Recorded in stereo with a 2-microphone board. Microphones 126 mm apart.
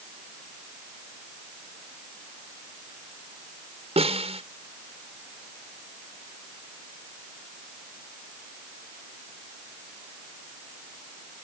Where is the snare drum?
55° right (ahead or behind).